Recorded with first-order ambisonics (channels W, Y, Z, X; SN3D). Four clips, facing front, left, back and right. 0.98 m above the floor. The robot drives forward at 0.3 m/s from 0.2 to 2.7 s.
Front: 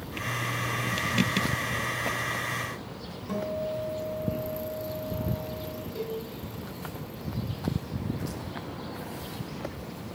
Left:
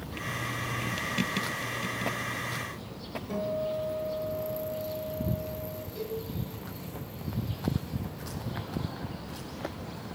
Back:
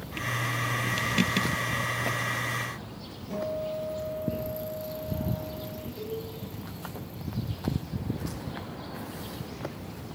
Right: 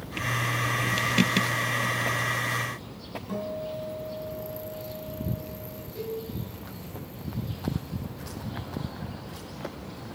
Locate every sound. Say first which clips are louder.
3.3 s a guitar: left 2 dB, front 1 dB; 20° right, 4 m
6.0 s a cowbell: right 2 dB, front 2 dB; 5° right, 4 m